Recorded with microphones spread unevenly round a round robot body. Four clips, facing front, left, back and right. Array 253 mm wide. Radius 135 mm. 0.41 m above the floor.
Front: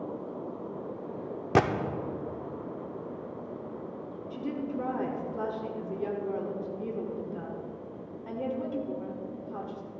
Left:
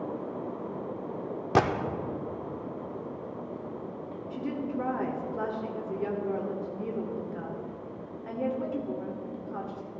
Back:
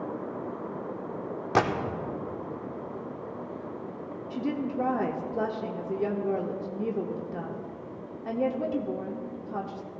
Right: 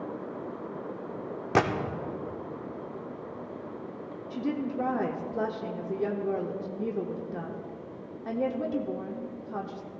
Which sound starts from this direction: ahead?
A gunshot, at 1.6 s.